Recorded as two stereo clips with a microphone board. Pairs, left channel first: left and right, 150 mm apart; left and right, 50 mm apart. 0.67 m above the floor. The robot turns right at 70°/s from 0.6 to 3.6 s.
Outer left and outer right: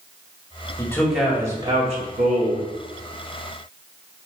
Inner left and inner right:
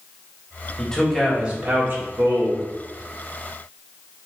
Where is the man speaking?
155° left, 1.6 m; by 2.7 s 75° right, 1.6 m.